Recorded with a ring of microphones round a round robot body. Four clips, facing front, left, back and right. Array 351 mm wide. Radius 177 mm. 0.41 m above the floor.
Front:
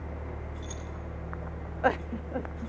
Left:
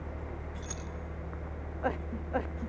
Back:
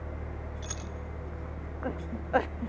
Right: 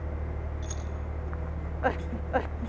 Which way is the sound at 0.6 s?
Straight behind.